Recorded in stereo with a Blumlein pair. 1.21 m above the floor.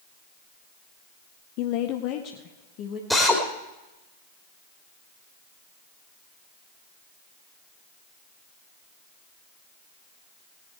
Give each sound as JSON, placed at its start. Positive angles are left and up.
{"t": 1.6, "sound": "a woman speaking", "azimuth_deg": 40, "distance_m": 0.6}
{"t": 3.1, "sound": "a drill", "azimuth_deg": 0, "distance_m": 3.0}